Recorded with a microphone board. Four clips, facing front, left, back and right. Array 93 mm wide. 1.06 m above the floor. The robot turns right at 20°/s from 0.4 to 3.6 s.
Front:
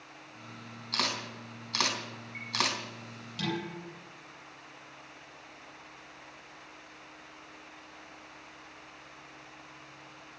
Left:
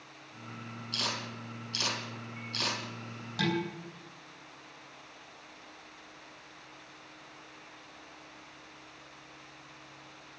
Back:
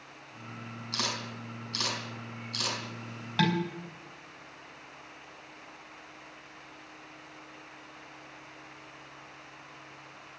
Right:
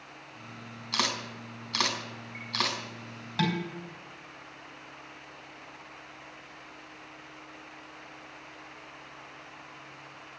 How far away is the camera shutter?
About 4 m.